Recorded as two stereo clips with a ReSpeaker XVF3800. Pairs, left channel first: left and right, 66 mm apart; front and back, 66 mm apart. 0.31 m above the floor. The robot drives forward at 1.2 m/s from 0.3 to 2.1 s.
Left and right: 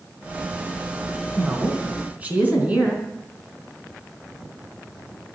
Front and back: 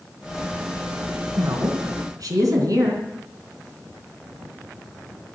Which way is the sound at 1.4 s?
145° right.